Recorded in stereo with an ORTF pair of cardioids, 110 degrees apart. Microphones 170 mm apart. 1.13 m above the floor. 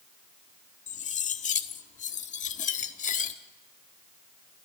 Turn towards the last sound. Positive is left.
turn(degrees=45)